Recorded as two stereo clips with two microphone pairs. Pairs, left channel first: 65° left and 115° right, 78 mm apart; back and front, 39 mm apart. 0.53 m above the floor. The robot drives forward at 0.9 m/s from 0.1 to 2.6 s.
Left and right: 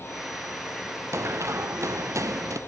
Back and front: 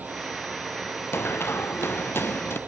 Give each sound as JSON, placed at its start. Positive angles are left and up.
{"t": 1.1, "sound": "running footsteps", "azimuth_deg": -170}